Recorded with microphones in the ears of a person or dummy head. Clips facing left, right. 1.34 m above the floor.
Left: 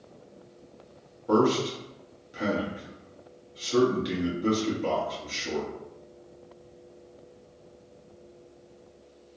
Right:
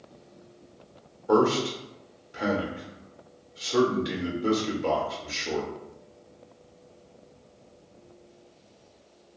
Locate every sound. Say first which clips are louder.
1.3 s a man speaking: right 1 dB; 50° left (ahead or behind), 1.0 m